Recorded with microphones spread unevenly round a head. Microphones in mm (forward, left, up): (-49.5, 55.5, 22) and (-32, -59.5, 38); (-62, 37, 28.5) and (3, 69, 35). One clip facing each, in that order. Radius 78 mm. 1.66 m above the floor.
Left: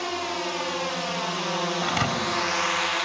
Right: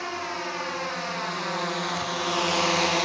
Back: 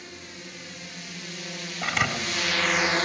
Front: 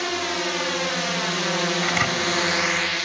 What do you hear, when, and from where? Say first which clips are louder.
0.0 s a drone: left 3 dB, front 17 dB; 25° left; by 3.1 s 130° right
1.8 s a thud: left 3 dB, front 4 dB; 115° left